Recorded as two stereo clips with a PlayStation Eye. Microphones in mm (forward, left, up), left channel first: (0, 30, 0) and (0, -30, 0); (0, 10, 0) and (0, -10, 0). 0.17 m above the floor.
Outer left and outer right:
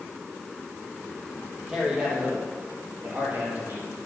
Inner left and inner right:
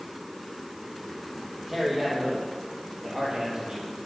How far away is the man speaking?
About 4 m.